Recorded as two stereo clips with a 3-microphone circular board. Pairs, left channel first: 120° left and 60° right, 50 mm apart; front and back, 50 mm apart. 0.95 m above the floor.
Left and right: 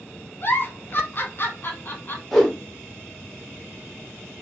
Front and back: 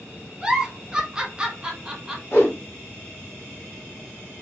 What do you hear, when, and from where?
0.4 s a giggle: 115° left, 0.9 m
2.3 s a whoosh: 30° left, 1.5 m